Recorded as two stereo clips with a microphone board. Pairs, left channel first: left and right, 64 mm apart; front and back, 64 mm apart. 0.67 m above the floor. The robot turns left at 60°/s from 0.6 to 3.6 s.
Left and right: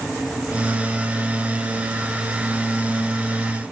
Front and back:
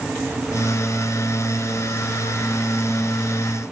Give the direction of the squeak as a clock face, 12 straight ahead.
I don't hear a squeak.